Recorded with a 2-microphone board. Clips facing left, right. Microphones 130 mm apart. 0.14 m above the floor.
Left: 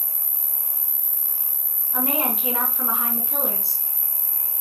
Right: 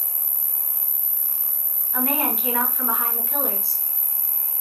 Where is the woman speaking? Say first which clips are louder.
Right 1 dB; 25° left (ahead or behind), 2 m.